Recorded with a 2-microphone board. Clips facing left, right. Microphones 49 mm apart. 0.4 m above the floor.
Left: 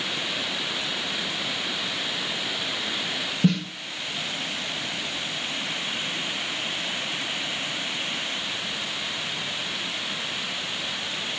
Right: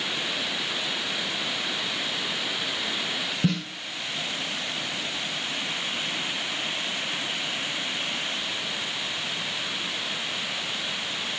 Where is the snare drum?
Centre (ahead or behind), 3.5 m.